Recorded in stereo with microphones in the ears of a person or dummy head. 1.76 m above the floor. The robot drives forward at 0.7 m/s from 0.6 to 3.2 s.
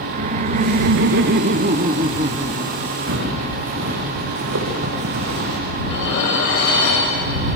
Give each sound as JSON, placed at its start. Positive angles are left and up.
{"t": 0.1, "sound": "laughter", "side_deg": -45, "distance_m": 0.6}
{"t": 3.1, "sound": "footsteps", "side_deg": -70, "distance_m": 6.0}
{"t": 5.8, "sound": "dishes clattering", "side_deg": 65, "distance_m": 6.5}